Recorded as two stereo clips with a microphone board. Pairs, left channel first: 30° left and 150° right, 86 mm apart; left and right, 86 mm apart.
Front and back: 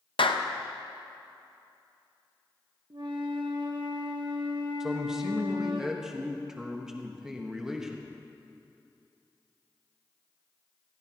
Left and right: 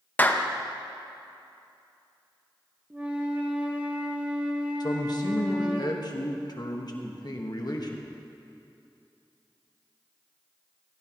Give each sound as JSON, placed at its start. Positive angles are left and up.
{"t": 0.2, "sound": "a clap", "azimuth_deg": 20, "distance_m": 0.7}
{"t": 2.9, "sound": "a flute", "azimuth_deg": -165, "distance_m": 1.2}
{"t": 4.8, "sound": "a man speaking", "azimuth_deg": 125, "distance_m": 1.4}